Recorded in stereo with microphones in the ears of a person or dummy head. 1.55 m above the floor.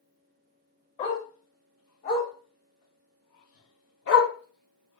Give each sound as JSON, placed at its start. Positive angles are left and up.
{"t": 1.0, "sound": "a dog barking", "side_deg": 45, "distance_m": 2.5}